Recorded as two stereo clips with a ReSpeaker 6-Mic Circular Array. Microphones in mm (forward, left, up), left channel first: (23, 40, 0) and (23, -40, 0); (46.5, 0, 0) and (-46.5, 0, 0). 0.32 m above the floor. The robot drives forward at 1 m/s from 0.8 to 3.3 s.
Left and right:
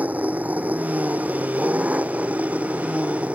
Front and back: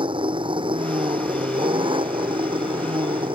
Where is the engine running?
160° right; by 3.4 s 165° right.